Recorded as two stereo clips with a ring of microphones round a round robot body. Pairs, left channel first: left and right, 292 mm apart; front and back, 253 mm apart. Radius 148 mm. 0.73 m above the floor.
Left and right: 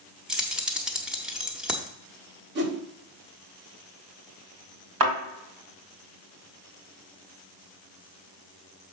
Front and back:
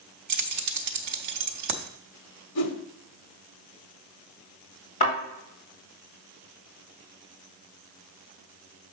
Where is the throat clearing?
No throat clearing in this recording.